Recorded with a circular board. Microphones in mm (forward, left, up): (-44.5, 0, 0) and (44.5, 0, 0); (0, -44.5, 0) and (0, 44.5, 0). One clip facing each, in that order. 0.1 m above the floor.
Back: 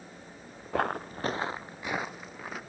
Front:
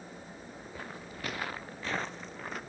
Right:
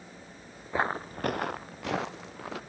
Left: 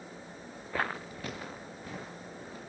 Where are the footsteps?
160° right, 0.6 m; by 2.6 s 90° right, 1.8 m.